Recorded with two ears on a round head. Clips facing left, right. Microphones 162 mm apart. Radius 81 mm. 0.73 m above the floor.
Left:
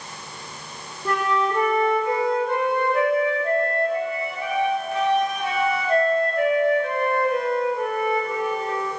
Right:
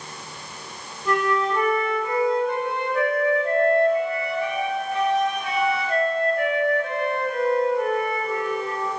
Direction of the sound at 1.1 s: 75° left (ahead or behind).